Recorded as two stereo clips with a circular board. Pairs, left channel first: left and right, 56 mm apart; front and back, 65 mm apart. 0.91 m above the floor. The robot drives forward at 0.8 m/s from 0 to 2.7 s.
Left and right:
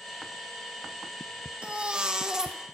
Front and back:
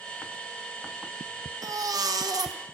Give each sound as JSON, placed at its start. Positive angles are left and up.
{"t": 1.6, "sound": "a baby crying", "azimuth_deg": -160, "distance_m": 1.1}